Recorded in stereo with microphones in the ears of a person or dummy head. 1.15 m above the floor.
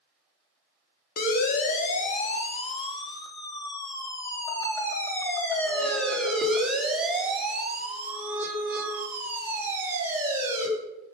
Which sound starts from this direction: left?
A siren, at 1.2 s.